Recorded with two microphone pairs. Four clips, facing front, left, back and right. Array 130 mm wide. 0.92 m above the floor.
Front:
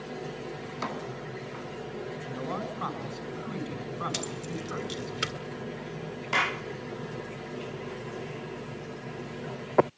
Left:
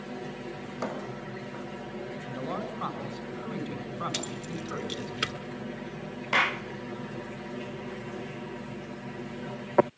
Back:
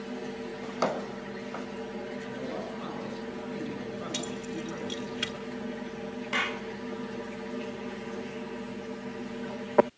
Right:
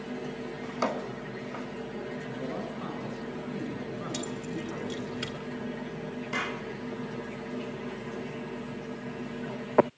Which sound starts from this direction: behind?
A drawer, at 0.6 s.